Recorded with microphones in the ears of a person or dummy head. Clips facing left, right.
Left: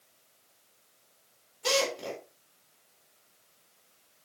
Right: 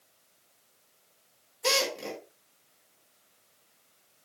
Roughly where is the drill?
Right.